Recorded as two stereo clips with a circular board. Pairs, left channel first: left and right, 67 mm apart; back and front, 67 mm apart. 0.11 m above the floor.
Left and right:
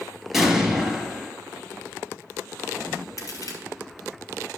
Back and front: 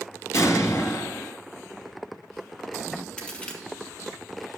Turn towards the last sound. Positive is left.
turn(degrees=110)